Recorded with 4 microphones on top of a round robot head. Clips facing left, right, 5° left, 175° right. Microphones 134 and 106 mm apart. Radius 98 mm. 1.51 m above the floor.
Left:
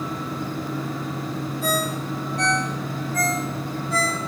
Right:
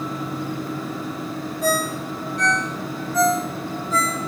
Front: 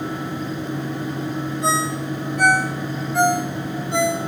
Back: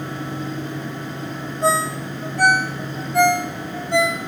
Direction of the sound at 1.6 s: 105° right.